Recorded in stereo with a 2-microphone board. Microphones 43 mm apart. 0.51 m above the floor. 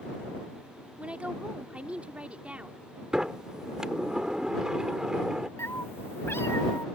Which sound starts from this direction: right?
A woman speaking, at 1.0 s.